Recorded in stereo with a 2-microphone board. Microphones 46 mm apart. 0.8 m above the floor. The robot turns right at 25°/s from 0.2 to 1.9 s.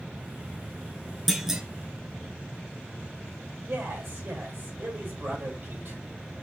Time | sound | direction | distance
1.3 | a clunk | 5° right (ahead or behind) | 0.9 m
3.7 | a man speaking | 60° right (ahead or behind) | 3 m